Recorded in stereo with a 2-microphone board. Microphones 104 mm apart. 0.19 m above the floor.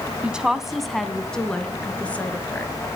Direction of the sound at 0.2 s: 10° right (ahead or behind).